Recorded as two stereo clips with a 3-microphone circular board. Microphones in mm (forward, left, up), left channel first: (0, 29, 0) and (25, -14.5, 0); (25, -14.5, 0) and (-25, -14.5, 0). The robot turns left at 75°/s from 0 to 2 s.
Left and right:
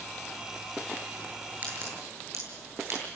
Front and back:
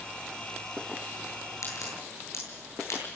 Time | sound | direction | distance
1.6 | a crack | straight ahead | 9.5 m